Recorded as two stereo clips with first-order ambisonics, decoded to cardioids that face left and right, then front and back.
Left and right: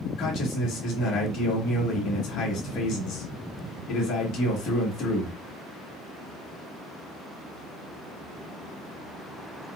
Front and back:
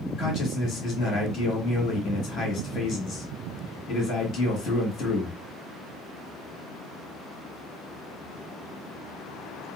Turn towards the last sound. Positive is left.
turn(degrees=50)